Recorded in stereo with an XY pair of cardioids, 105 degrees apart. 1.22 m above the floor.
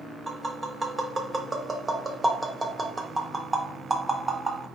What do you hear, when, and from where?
0.3 s tapping: 30° right, 0.5 m